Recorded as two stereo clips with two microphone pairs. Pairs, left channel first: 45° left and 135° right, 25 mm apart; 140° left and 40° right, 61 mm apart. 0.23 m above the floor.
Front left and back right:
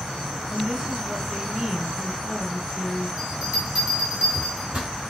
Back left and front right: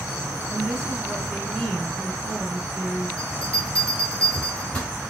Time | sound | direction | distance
0.5 | a woman speaking | 125° right | 1.9 m
3.2 | a bell | 155° right | 1.3 m